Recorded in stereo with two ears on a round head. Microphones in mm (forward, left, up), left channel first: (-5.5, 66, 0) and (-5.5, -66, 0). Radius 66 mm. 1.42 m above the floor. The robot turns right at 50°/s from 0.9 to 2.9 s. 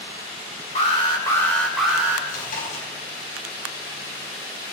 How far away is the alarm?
About 3.5 m.